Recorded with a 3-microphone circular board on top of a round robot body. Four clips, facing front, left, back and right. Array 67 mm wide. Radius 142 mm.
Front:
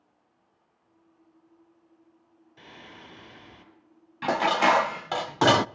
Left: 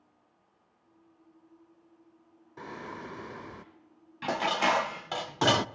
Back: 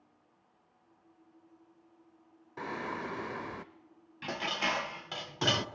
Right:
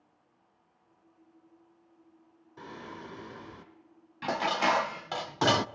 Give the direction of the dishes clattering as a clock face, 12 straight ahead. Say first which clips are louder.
Even, front 12 dB; 12 o'clock.